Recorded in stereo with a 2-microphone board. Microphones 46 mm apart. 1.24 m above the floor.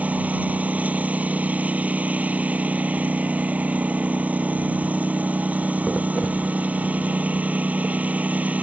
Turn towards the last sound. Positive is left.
turn(degrees=-35)  # may be behind; listen again after turning